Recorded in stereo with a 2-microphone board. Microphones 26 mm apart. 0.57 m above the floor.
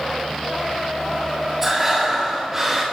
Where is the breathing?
10° right (ahead or behind), 3 m.